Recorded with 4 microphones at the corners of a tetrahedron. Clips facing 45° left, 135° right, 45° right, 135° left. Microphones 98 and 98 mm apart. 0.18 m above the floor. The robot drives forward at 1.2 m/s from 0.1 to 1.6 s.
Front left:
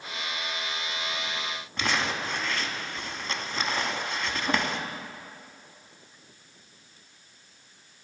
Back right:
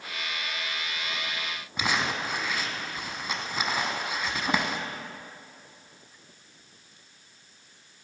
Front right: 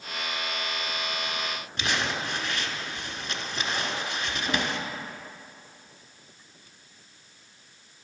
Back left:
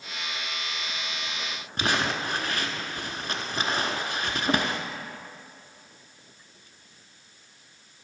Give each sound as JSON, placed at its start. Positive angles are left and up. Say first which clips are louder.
{"t": 1.8, "sound": "crumpling", "louder": "even, back left 3 dB", "azimuth_deg": 150, "distance_m": 0.7}